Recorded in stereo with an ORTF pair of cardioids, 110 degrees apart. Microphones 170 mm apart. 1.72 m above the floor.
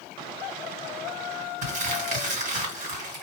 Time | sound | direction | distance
1.6 | crumpling | 45° right | 1.7 m